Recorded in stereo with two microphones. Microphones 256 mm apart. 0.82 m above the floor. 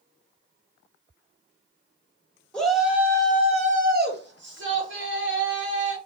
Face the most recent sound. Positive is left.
turn(degrees=-50)  # may be behind; listen again after turning